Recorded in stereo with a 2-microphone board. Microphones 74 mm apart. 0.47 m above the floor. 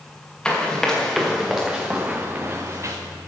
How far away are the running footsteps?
About 3 m.